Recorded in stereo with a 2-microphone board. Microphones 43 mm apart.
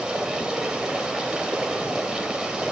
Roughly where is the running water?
Centre.